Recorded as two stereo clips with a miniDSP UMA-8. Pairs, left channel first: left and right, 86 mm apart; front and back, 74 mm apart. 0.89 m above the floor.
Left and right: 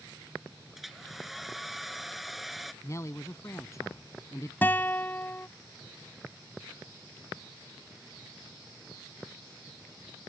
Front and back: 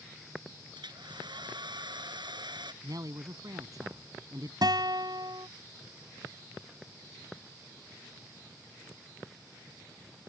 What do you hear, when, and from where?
0.8 s a hair dryer: straight behind
2.8 s a man speaking: 145° left
4.6 s a guitar: 160° left